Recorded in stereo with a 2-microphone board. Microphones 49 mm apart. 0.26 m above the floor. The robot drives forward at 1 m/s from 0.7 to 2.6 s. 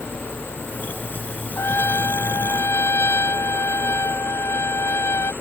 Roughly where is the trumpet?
Left.